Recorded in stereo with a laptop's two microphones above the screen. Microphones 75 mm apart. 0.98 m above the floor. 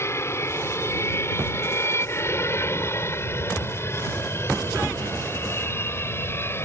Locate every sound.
0.0 s an aircraft: 35° left (ahead or behind); by 6.6 s 30° left (ahead or behind)